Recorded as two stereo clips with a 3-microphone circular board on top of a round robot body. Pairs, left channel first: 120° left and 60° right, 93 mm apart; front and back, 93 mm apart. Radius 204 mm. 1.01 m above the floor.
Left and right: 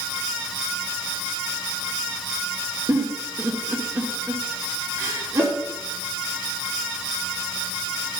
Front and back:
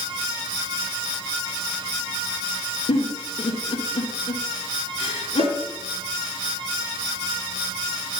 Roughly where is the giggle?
Ahead.